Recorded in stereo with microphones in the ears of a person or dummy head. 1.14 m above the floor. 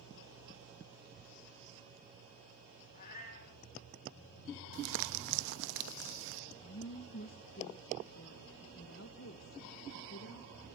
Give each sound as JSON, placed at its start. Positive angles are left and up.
{"t": 1.0, "sound": "a child speaking", "side_deg": -30, "distance_m": 1.2}
{"t": 2.9, "sound": "a cat meowing", "side_deg": 50, "distance_m": 5.5}
{"t": 4.7, "sound": "crumpling", "side_deg": -65, "distance_m": 1.2}
{"t": 6.5, "sound": "a woman speaking", "side_deg": 65, "distance_m": 1.5}